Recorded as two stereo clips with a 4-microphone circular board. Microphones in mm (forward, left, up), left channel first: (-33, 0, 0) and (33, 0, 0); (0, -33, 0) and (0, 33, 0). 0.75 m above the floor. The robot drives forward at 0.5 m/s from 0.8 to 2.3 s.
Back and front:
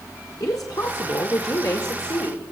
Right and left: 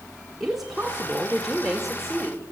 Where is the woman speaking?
175° left, 1.7 m; by 2.5 s straight behind, 2.5 m.